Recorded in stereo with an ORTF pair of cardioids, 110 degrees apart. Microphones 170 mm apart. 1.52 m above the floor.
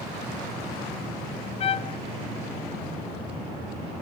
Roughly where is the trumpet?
Ahead left.